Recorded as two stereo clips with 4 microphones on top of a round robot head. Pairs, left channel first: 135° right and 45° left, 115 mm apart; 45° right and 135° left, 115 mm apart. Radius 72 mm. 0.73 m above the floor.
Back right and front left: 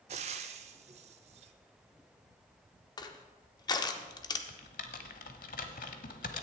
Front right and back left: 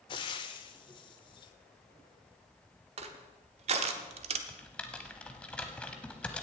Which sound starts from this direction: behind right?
Typing on a keyboard, at 4.5 s.